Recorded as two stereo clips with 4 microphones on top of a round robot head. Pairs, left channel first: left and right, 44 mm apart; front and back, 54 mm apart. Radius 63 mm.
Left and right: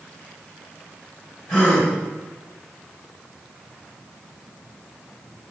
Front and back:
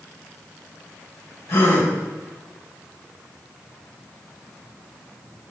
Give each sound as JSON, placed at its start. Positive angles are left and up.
{"t": 1.5, "sound": "a gasp", "azimuth_deg": 35, "distance_m": 2.0}